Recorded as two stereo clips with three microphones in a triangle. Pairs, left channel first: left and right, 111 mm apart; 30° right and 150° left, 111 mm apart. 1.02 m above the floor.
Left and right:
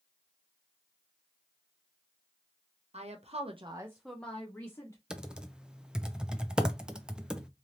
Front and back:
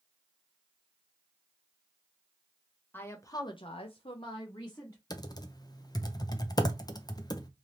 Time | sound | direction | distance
2.9 | a woman speaking | 100° right | 1.0 m
5.1 | typing on a keyboard | 10° right | 0.6 m